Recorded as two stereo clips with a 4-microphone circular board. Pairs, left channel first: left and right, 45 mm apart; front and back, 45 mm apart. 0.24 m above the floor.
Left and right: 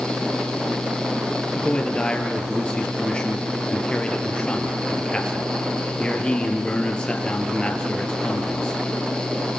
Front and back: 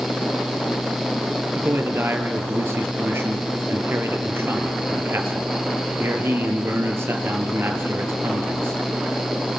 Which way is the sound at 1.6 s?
160° left.